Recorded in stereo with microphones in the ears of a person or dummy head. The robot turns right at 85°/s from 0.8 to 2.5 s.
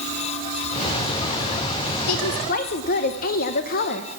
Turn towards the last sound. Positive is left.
turn(degrees=130)